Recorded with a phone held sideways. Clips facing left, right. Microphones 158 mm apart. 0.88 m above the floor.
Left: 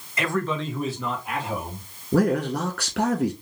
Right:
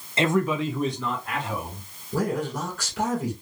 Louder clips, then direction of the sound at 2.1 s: Left 5 dB; 80° left.